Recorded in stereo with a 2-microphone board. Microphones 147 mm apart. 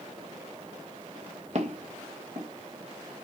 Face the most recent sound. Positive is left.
turn(degrees=-55)  # may be behind; listen again after turning